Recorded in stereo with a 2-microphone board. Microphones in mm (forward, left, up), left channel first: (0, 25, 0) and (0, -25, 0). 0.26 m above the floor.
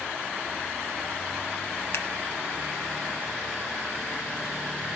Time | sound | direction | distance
1.9 | scissors | 60° left (ahead or behind) | 2 m